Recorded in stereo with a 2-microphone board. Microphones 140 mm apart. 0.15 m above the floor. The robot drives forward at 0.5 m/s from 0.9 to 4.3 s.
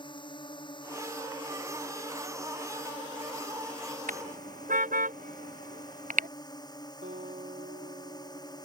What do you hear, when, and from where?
0.0 s a drone: 35° left (ahead or behind); by 8.7 s 30° left (ahead or behind)
4.1 s a car horn: 85° right
7.0 s a guitar: 70° right (ahead or behind)